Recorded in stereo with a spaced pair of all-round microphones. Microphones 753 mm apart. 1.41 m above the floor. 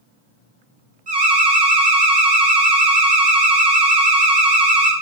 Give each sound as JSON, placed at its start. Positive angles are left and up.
{"t": 1.1, "sound": "an alarm", "side_deg": -35, "distance_m": 0.6}